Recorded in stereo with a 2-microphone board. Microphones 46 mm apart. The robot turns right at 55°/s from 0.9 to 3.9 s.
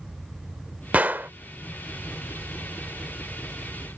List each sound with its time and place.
0.9 s a gunshot: 30° right (ahead or behind); by 1.3 s 50° right (ahead or behind)